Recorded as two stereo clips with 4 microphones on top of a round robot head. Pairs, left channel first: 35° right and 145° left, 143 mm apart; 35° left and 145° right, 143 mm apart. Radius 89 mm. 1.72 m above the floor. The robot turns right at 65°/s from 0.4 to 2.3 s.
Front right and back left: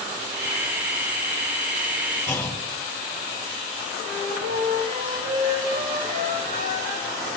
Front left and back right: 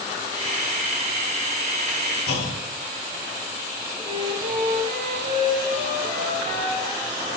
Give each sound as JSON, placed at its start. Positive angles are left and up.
{"t": 2.3, "sound": "a clunk", "azimuth_deg": 35, "distance_m": 4.5}
{"t": 4.0, "sound": "a flute", "azimuth_deg": 165, "distance_m": 7.5}